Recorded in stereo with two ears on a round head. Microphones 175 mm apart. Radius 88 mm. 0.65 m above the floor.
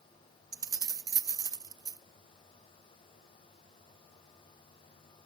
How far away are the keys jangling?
About 0.6 m.